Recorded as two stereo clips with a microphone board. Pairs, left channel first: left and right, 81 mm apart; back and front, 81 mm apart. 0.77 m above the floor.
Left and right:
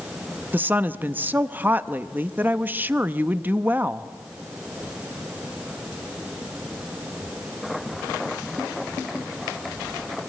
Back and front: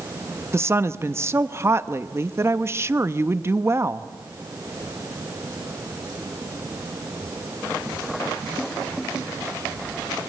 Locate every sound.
0.5 s a woman speaking: 35° right, 0.9 m